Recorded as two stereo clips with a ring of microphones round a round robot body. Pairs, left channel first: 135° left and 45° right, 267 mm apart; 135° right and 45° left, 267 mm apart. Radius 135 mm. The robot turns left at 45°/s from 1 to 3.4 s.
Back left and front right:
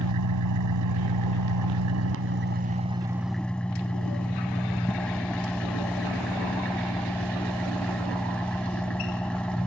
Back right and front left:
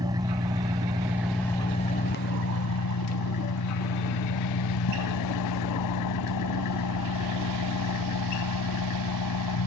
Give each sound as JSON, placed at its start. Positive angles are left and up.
{"t": 0.0, "sound": "an engine running", "azimuth_deg": -30}